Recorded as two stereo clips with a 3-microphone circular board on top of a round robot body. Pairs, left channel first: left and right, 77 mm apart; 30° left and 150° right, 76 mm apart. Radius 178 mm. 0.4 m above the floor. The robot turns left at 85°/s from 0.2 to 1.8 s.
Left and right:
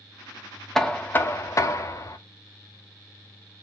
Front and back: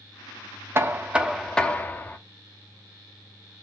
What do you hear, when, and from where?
0.8 s knocking: 175° left, 0.7 m; by 2.2 s 85° left, 0.7 m